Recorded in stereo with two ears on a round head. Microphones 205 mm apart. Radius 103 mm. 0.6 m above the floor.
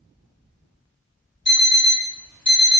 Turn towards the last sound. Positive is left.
turn(degrees=50)  # may be behind; listen again after turning